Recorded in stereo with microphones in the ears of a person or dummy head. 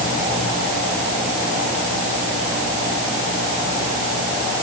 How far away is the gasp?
I don't hear a gasp.